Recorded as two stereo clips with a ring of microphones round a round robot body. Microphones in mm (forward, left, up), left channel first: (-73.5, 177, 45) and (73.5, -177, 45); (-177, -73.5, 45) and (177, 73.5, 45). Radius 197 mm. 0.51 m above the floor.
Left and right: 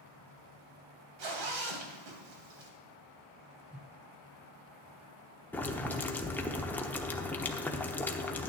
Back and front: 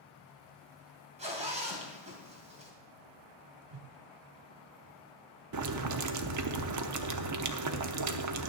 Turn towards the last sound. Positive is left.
turn(degrees=30)